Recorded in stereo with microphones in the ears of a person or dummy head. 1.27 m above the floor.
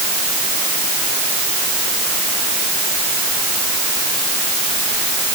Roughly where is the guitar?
No guitar in this recording.